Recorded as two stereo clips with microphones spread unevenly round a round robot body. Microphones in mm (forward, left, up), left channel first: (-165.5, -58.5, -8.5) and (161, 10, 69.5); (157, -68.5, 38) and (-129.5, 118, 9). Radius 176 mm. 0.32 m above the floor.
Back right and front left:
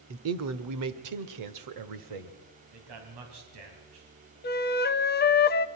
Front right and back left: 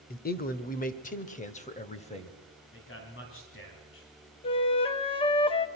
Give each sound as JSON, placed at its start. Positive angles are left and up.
{"t": 0.1, "sound": "a man speaking", "azimuth_deg": 0, "distance_m": 1.1}
{"t": 2.7, "sound": "a man speaking", "azimuth_deg": 20, "distance_m": 3.5}
{"t": 4.4, "sound": "a flute", "azimuth_deg": -110, "distance_m": 0.7}